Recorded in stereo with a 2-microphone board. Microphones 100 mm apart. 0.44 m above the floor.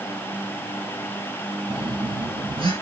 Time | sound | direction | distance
1.7 | a phone buzzing | 60° right (ahead or behind) | 5.5 m